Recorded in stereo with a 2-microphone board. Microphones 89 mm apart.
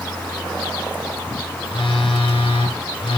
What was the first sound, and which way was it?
A phone buzzing, 85° left.